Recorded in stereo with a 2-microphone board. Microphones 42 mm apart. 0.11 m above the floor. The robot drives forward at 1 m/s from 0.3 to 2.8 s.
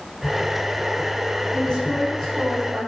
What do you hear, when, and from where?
1.5 s a woman speaking: 15° left (ahead or behind), 3 m; by 2.9 s 10° left (ahead or behind), 4 m